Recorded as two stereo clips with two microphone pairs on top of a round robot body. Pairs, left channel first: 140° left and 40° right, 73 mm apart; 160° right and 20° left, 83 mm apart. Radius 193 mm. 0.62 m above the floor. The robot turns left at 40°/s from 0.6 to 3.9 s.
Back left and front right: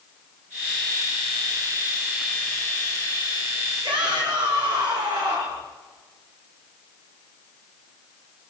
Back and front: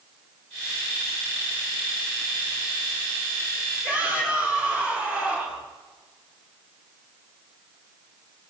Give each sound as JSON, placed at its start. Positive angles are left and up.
{"t": 3.8, "sound": "a shout", "azimuth_deg": -50, "distance_m": 8.5}